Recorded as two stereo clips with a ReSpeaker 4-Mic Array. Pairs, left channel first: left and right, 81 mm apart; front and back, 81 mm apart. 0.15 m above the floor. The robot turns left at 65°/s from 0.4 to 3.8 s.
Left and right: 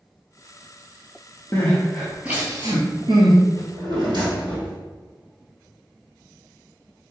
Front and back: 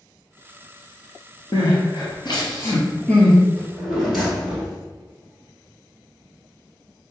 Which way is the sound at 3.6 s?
75° right.